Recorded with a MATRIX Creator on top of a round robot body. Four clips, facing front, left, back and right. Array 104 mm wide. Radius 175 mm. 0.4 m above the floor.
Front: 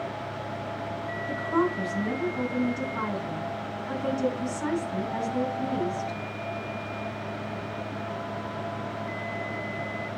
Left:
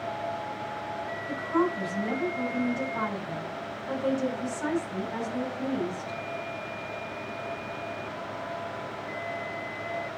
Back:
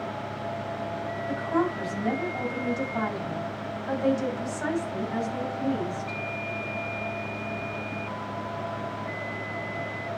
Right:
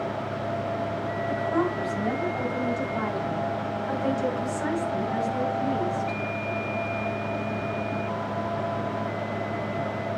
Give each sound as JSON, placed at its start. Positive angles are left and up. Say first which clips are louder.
{"t": 1.3, "sound": "a woman speaking", "louder": "even, front 1 dB", "azimuth_deg": -155, "distance_m": 5.0}